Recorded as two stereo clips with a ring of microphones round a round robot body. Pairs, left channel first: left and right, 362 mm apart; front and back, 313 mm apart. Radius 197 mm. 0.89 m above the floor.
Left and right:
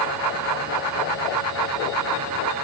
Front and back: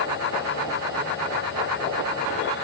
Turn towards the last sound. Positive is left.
No sound to turn to.